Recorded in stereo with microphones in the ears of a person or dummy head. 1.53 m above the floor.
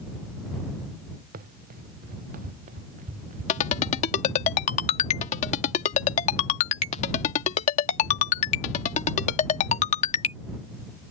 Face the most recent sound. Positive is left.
turn(degrees=40)  # may be behind; listen again after turning